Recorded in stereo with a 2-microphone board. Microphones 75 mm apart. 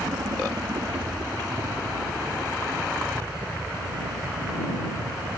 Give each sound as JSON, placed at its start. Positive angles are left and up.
{"t": 0.0, "sound": "a helicopter", "side_deg": -70}